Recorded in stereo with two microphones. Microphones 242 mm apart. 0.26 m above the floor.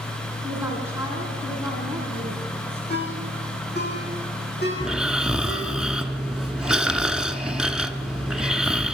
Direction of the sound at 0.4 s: 10° right (ahead or behind).